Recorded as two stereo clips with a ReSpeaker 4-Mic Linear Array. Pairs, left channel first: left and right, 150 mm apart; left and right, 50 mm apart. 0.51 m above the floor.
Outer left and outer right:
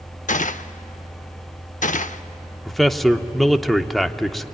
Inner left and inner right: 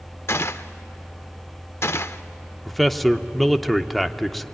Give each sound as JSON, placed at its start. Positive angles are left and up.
{"t": 0.3, "sound": "a gunshot", "side_deg": 55, "distance_m": 0.6}
{"t": 2.6, "sound": "a man speaking", "side_deg": 0, "distance_m": 0.8}